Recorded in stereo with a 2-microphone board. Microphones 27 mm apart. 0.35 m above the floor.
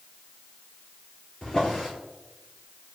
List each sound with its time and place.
1.4 s a drawer: 30° left (ahead or behind), 1.8 m